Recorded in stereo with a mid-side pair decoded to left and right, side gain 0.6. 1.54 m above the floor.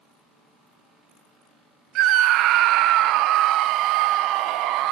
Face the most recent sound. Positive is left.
turn(degrees=-65)